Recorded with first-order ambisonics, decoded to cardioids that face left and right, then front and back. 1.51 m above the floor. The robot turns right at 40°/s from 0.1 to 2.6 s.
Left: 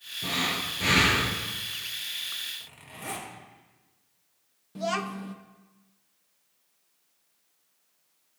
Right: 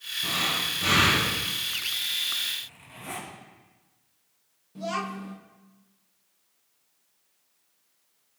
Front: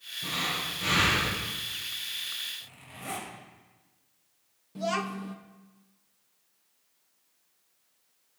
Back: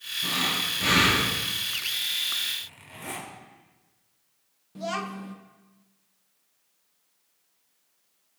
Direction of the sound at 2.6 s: 125° left.